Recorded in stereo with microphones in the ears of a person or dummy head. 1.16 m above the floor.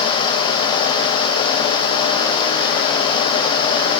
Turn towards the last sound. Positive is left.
No sound to turn to.